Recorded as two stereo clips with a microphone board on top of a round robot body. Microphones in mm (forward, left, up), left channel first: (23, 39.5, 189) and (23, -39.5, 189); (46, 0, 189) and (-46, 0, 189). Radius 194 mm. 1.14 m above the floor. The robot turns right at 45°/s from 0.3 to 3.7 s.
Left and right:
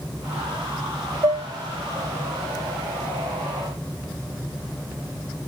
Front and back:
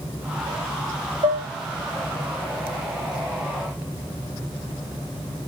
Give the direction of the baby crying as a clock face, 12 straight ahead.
No baby crying in this recording.